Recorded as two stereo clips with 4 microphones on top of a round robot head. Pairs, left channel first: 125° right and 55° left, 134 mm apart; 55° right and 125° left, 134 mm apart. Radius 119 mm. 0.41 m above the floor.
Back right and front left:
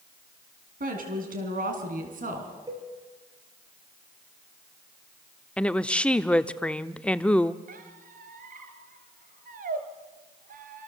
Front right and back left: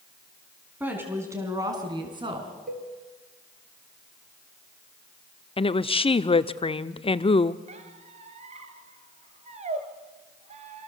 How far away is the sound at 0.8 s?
About 5 m.